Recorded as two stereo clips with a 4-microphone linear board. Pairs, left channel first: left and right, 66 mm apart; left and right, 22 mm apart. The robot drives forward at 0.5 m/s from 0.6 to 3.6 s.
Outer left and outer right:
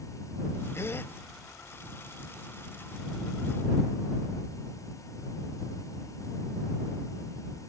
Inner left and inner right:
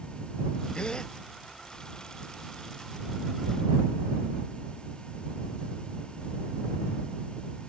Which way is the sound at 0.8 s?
45° left (ahead or behind).